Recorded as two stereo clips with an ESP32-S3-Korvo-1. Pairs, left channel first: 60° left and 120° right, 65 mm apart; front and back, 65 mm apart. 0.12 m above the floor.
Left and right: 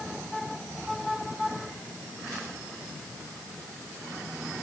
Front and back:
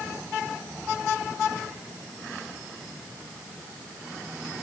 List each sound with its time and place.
Only background noise.